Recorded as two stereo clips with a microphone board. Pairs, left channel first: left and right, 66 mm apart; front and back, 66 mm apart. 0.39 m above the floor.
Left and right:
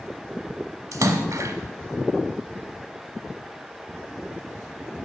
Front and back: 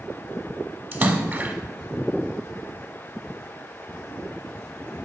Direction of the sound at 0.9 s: 125° right.